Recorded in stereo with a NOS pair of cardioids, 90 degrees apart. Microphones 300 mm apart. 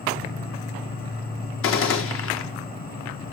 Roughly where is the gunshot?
Ahead left.